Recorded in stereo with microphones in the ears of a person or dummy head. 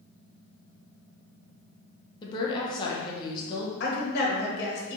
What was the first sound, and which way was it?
A woman speaking, 20° left (ahead or behind).